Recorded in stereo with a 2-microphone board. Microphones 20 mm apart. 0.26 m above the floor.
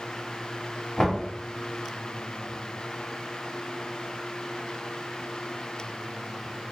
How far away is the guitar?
I don't hear a guitar.